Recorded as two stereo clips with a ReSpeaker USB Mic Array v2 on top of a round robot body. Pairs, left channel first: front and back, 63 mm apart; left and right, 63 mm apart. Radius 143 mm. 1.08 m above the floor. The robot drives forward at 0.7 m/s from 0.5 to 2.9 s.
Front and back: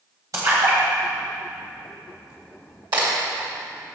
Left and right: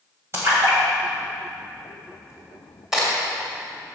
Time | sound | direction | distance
0.3 | a splash | 140° right | 2 m
2.9 | a crack | 175° right | 2 m